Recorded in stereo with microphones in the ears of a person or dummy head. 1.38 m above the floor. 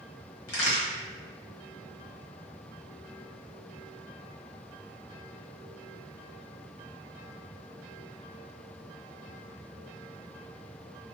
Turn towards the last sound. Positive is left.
turn(degrees=85)